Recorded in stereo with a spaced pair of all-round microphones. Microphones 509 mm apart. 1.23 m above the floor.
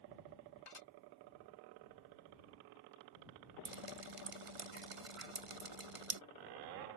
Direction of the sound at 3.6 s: 85° right.